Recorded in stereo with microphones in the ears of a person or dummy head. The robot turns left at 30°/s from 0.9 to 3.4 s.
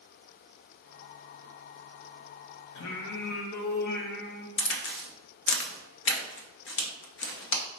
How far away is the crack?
About 0.6 m.